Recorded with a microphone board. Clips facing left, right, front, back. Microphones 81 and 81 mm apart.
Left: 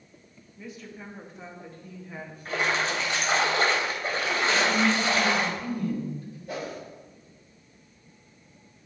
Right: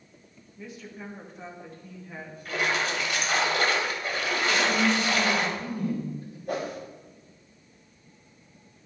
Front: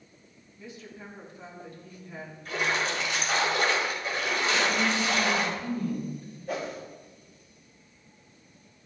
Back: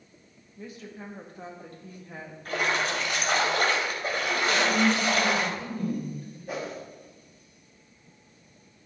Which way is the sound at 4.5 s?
155° right.